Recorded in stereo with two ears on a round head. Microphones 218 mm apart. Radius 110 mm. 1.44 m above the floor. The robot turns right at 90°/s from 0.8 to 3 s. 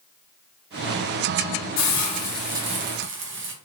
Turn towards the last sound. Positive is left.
turn(degrees=-125)